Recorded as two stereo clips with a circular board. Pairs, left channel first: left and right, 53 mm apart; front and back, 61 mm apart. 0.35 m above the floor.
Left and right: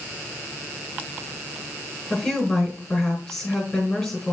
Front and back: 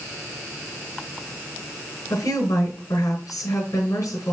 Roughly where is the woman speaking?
Ahead left.